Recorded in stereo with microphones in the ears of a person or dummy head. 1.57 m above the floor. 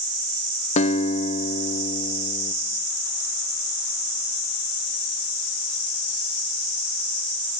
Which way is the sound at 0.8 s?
45° left (ahead or behind).